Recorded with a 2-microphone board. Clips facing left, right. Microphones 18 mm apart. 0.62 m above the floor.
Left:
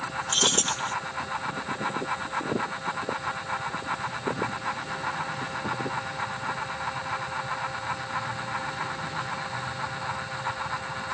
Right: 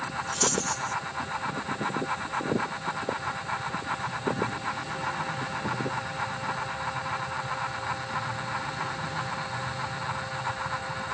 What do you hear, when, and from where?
0.3 s keys jangling: 70° left (ahead or behind)